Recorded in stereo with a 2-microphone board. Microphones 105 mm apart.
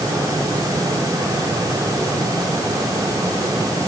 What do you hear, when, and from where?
Only background noise.